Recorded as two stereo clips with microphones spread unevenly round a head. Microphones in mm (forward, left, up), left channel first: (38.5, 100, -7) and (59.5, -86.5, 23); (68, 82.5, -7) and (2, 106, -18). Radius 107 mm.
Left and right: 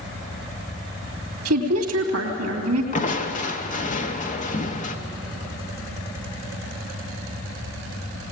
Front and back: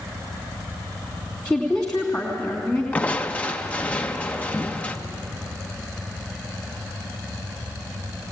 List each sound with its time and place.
1.4 s a woman speaking: 100° right, 2.5 m
2.9 s crushing: 45° left, 1.3 m